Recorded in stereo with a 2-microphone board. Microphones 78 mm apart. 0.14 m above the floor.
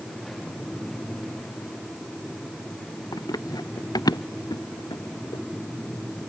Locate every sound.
3.1 s running footsteps: 55° left (ahead or behind); by 5.4 s 65° left (ahead or behind)